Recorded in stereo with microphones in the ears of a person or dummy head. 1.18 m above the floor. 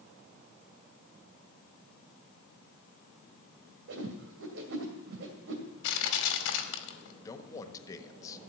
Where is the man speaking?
20° left (ahead or behind), 1.4 m.